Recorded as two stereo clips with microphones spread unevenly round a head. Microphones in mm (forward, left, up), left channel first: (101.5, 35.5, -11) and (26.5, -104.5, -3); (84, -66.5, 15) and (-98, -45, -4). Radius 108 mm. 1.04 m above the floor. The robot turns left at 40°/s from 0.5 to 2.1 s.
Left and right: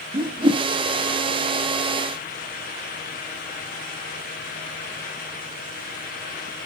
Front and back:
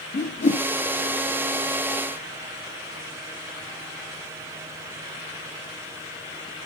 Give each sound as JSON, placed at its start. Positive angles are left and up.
{"t": 0.1, "sound": "a whoosh", "azimuth_deg": -60, "distance_m": 1.1}